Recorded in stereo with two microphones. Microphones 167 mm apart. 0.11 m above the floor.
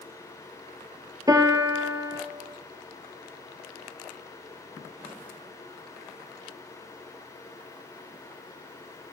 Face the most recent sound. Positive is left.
turn(degrees=-20)  # may be behind; listen again after turning